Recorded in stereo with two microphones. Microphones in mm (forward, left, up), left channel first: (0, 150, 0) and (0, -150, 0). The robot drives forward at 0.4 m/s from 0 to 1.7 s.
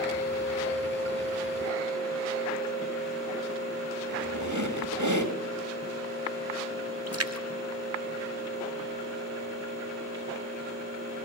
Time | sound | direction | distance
4.1 | a squeak | 70° right (ahead or behind) | 3 m
7.1 | a splash | 55° right (ahead or behind) | 1.5 m